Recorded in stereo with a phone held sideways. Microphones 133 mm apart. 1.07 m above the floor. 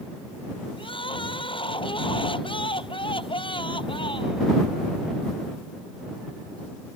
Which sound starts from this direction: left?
Crying, at 0.8 s.